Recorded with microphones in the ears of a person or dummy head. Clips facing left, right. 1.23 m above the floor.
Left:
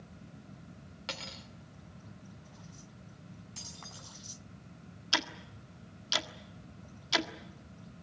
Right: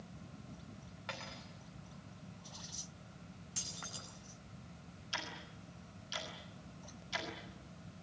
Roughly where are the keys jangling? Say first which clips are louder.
Even; centre.